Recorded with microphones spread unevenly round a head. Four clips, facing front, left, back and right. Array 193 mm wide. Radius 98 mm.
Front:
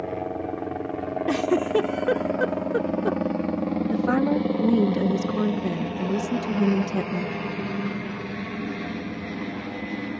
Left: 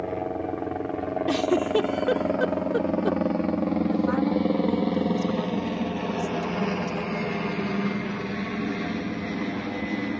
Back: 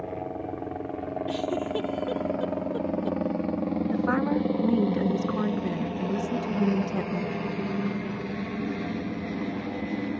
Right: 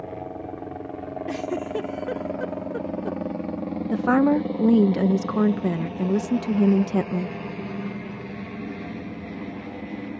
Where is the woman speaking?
80° right.